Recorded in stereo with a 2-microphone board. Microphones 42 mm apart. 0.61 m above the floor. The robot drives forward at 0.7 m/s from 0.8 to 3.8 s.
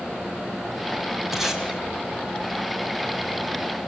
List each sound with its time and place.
1.3 s tape being pulled: 10° right (ahead or behind), 4 m